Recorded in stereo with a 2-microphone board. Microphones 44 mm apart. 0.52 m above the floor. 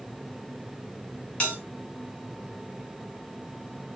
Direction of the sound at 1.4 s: 25° left (ahead or behind).